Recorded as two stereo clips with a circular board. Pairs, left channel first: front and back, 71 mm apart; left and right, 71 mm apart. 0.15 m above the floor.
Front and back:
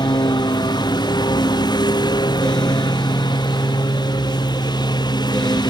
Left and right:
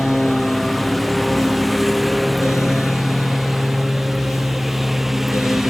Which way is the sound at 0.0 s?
Straight ahead.